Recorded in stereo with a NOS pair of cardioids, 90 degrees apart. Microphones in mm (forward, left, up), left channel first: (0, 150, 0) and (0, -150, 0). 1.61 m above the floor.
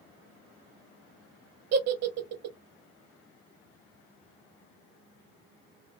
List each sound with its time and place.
1.7 s a giggle: 60° right, 0.8 m